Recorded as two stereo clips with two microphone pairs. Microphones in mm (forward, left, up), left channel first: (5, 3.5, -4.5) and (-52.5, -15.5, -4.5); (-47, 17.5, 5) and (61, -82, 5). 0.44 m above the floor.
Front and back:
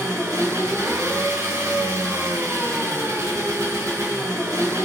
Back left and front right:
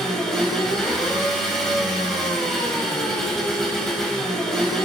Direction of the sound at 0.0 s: 135° right.